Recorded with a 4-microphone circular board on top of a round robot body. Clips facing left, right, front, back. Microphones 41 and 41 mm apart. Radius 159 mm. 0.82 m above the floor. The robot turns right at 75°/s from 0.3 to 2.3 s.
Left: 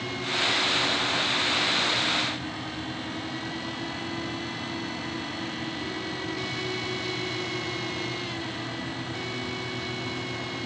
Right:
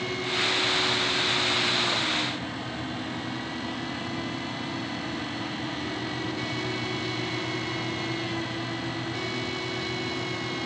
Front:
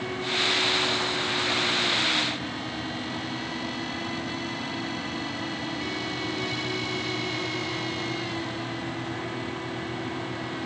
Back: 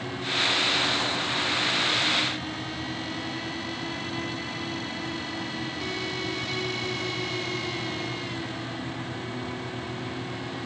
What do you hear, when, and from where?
Only background noise.